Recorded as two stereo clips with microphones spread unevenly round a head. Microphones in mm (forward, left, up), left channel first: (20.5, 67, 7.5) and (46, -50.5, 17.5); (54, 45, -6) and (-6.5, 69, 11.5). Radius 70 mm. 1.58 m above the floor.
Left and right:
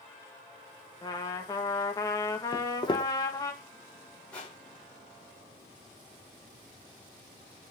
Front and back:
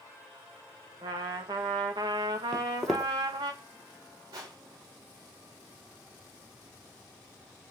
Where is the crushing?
175° right, 4 m.